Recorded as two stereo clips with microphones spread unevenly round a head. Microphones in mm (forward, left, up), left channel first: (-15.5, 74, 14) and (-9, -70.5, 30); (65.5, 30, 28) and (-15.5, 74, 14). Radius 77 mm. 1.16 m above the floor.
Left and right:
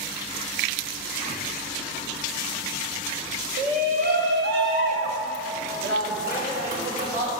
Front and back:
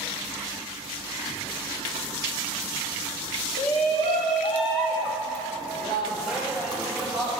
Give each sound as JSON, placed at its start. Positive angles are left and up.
{"t": 3.6, "sound": "a shout", "azimuth_deg": -40, "distance_m": 1.0}